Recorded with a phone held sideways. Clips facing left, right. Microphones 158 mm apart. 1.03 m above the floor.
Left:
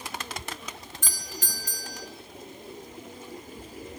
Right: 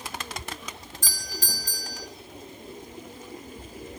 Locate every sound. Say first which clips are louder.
1.0 s a doorbell: right 2 dB; 35° right (ahead or behind), 0.7 m